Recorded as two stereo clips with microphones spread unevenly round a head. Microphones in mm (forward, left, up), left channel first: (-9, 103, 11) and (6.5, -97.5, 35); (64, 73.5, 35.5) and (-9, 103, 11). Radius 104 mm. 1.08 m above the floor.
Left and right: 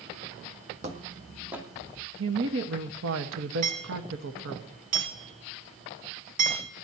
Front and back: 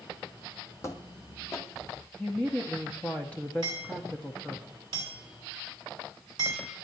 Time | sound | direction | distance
0.8 | footsteps | 45° right | 1.6 m
2.2 | a woman speaking | 110° right | 1.5 m
3.6 | hammering | 135° right | 6 m